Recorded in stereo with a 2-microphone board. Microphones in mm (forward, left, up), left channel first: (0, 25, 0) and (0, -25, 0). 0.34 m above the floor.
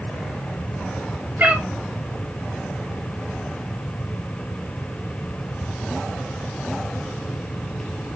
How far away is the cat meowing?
About 1.2 m.